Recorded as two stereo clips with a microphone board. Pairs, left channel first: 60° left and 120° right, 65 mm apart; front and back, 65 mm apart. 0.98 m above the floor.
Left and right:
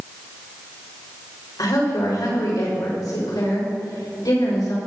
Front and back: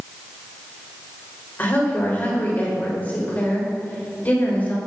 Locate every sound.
1.6 s a woman speaking: 65° left, 4.5 m